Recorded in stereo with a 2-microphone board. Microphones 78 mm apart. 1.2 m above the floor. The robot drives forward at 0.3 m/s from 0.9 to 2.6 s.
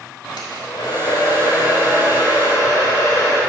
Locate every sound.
0.4 s a hair dryer: 70° left (ahead or behind), 1.9 m; by 3.4 s 60° left (ahead or behind), 2 m